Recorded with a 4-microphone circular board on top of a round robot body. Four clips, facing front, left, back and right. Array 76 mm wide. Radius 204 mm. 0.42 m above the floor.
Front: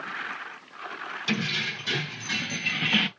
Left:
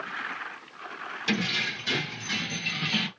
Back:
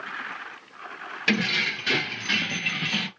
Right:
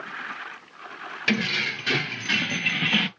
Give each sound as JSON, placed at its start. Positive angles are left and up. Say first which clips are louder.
{"t": 1.3, "sound": "keys jangling", "louder": "right 4 dB, back 5 dB", "azimuth_deg": -140, "distance_m": 1.7}